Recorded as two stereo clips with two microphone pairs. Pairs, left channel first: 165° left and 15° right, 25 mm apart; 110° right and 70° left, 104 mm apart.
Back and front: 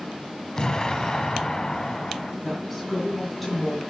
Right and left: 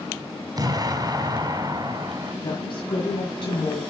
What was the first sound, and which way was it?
An explosion, 105° left.